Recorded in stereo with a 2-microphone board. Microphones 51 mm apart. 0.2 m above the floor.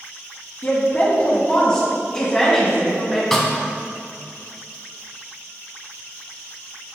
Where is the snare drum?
5° left (ahead or behind), 0.9 m.